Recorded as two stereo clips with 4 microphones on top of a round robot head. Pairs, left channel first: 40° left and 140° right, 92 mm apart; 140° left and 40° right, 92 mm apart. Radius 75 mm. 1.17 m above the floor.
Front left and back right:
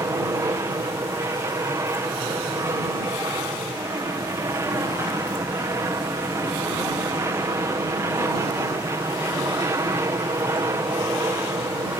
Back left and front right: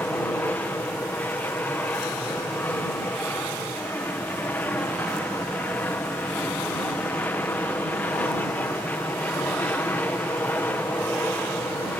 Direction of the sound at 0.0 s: 165° right.